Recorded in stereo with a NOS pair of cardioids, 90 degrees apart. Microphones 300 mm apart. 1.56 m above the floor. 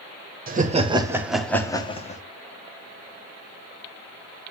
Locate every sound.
0.5 s laughter: 30° right, 1.1 m; by 2.2 s 25° left, 1.2 m